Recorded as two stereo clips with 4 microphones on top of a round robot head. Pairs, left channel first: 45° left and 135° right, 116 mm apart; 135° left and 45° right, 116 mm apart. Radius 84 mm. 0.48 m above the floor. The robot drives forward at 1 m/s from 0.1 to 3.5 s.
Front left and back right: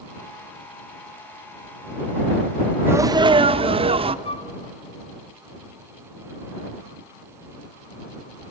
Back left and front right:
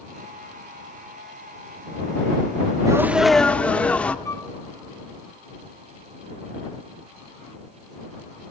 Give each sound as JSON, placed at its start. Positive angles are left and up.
{"t": 2.9, "sound": "a sneeze", "azimuth_deg": -80, "distance_m": 0.8}
{"t": 4.2, "sound": "a flute", "azimuth_deg": 75, "distance_m": 0.7}